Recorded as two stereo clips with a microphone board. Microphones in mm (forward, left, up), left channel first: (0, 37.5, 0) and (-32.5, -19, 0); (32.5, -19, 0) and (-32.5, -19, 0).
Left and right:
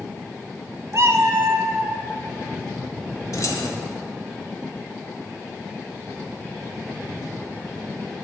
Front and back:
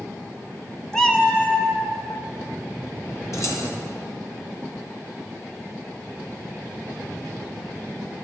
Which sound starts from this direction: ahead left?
Keys jangling, at 3.3 s.